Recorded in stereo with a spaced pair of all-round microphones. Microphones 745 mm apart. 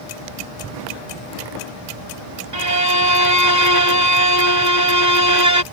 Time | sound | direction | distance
2.5 | a violin | 70° right (ahead or behind) | ?